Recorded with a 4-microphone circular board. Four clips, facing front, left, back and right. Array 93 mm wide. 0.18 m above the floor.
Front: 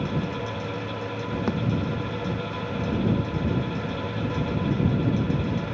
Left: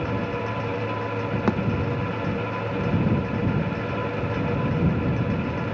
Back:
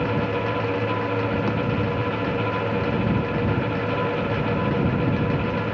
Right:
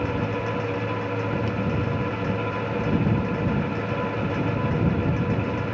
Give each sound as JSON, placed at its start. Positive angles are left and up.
{"t": 1.5, "sound": "a thud", "azimuth_deg": 85}